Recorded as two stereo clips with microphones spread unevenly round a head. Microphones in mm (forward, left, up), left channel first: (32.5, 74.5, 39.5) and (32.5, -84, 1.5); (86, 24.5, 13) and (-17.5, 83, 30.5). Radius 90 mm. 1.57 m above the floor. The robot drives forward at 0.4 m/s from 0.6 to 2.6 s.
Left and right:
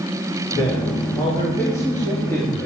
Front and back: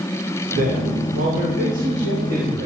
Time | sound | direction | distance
0.5 | a man speaking | 165° left | 2.5 m